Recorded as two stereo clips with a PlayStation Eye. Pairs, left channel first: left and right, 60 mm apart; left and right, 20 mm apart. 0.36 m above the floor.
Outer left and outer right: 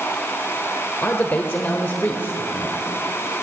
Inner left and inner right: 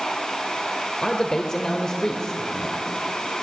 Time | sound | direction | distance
1.0 | a man speaking | 35° left (ahead or behind) | 0.9 m